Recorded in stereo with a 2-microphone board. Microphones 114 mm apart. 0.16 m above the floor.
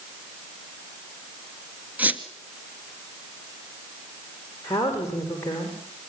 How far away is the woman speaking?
About 9 m.